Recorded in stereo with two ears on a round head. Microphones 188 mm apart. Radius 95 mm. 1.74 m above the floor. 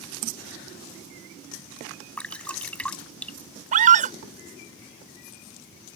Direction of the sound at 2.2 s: 5° left (ahead or behind).